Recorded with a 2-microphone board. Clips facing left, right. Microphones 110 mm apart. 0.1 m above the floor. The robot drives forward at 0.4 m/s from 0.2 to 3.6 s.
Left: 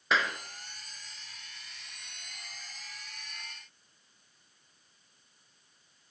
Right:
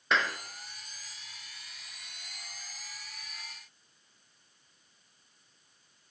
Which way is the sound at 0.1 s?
Centre (ahead or behind).